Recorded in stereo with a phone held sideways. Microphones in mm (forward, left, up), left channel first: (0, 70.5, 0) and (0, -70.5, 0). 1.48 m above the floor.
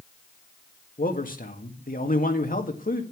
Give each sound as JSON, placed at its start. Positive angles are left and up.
{"t": 1.0, "sound": "a man speaking", "side_deg": 80, "distance_m": 1.9}